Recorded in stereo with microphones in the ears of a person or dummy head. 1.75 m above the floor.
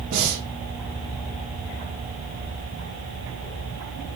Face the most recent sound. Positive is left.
turn(degrees=-55)  # may be behind; listen again after turning